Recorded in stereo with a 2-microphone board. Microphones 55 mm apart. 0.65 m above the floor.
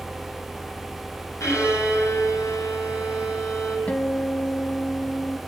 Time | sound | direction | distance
1.4 | a violin | 60° left (ahead or behind) | 8.5 m
3.9 | a guitar | 25° left (ahead or behind) | 1.1 m